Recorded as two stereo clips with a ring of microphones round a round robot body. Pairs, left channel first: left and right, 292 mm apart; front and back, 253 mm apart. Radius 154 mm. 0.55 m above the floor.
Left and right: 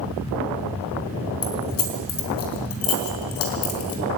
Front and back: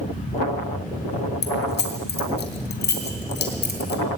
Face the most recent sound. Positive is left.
turn(degrees=50)